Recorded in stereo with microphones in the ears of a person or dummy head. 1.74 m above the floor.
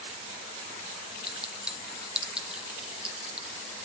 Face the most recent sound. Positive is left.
turn(degrees=-5)  # may be behind; listen again after turning